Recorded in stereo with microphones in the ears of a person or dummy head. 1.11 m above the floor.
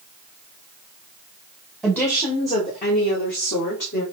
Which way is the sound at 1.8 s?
Centre (ahead or behind).